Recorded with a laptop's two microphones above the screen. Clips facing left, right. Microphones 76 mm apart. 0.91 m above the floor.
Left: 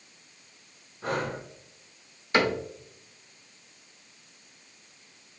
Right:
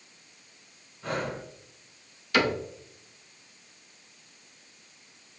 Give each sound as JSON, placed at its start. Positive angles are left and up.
{"t": 1.0, "sound": "breathing", "side_deg": 75, "distance_m": 1.4}
{"t": 2.3, "sound": "a cupboard door", "side_deg": 30, "distance_m": 0.8}